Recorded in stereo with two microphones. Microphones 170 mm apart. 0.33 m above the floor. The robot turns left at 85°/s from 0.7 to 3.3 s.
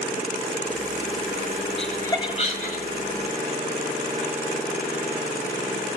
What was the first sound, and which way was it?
Laughter, centre (ahead or behind).